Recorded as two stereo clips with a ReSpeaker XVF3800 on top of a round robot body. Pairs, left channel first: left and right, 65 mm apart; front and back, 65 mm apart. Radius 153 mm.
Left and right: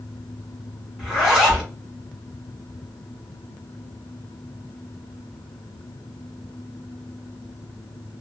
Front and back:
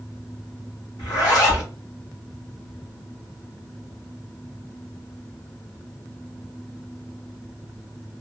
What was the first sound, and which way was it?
A zipper, 5° right.